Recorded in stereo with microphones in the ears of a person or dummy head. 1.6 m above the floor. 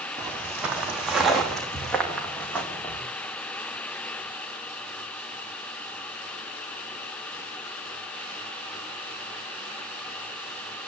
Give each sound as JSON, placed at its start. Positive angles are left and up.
{"t": 0.2, "sound": "footsteps", "side_deg": -10, "distance_m": 4.0}